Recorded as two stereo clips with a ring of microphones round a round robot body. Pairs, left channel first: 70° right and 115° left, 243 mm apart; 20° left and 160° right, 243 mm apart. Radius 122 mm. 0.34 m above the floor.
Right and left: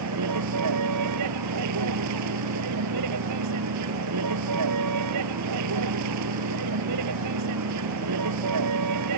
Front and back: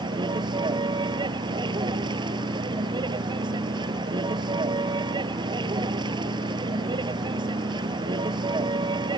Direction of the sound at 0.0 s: 130° left.